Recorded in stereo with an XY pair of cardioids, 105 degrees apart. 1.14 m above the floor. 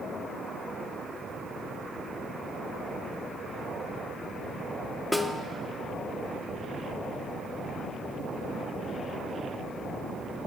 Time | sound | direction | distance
5.1 | a snare drum | straight ahead | 0.9 m